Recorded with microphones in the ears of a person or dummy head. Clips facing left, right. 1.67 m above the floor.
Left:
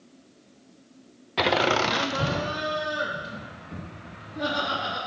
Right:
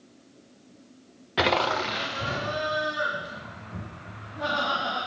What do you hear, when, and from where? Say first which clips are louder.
1.4 s laughter: left 2 dB; 10° right (ahead or behind), 0.6 m; by 5.0 s 55° left (ahead or behind), 5 m